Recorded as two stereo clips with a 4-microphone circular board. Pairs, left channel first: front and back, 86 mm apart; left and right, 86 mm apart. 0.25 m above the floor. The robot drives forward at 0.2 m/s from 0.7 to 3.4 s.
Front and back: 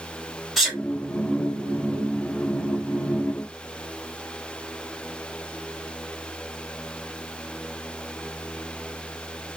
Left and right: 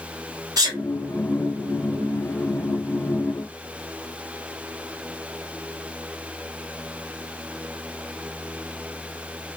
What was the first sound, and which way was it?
A sneeze, 90° right.